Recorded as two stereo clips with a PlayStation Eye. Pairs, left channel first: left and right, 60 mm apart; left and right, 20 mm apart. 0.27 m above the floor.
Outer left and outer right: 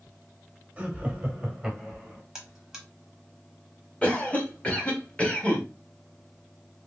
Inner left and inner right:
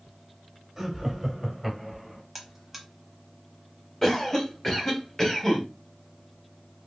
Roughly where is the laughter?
Centre.